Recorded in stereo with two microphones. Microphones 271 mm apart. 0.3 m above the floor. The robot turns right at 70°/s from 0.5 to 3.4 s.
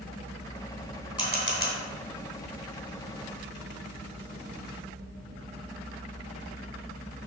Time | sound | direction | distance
1.2 | a camera shutter | 15° left (ahead or behind) | 2.5 m